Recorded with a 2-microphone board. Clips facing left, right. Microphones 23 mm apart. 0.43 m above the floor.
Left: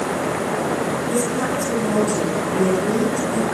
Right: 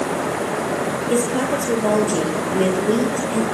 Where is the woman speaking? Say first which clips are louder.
Right 2 dB; 70° right (ahead or behind), 9.5 m; by 3.4 s 60° right (ahead or behind), 9 m.